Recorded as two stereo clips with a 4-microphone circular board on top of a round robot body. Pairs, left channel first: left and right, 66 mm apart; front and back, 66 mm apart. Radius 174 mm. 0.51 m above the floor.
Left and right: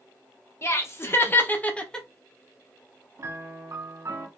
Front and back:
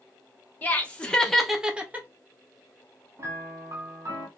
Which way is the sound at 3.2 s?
135° right.